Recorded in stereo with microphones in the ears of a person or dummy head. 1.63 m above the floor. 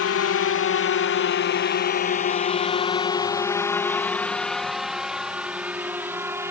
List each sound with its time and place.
0.0 s a drone: 65° left (ahead or behind); by 6.5 s 15° right (ahead or behind)